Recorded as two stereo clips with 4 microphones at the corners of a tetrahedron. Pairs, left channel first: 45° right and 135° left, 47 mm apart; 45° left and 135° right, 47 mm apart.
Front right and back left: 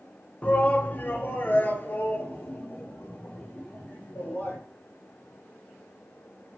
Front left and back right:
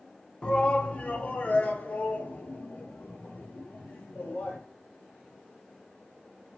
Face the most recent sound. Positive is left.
turn(degrees=-5)